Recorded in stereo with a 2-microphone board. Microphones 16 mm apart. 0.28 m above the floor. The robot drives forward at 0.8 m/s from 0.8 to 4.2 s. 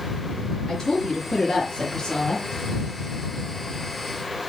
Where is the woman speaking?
40° left (ahead or behind), 5 m; by 2.5 s 50° left (ahead or behind), 4 m.